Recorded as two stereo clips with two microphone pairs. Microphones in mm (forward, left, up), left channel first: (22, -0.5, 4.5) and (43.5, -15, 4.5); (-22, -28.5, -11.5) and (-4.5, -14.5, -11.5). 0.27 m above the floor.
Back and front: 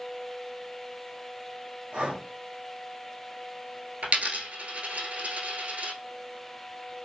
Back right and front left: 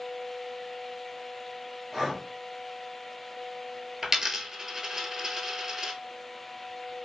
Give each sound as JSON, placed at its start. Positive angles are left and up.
{"t": 1.9, "sound": "breathing", "azimuth_deg": -40, "distance_m": 0.8}
{"t": 4.0, "sound": "a dropped coin", "azimuth_deg": -30, "distance_m": 0.7}